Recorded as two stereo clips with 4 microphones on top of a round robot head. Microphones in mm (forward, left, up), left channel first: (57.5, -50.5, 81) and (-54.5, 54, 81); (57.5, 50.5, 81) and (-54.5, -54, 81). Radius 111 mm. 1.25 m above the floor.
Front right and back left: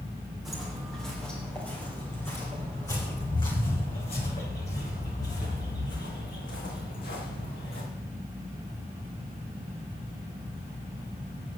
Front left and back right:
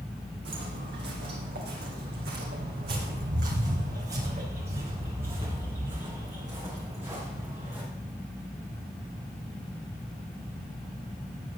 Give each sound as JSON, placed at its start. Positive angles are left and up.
{"t": 0.5, "sound": "footsteps", "azimuth_deg": -135, "distance_m": 3.5}